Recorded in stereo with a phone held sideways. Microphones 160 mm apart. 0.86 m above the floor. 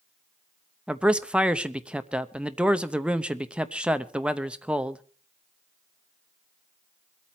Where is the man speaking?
5° right (ahead or behind), 0.8 m.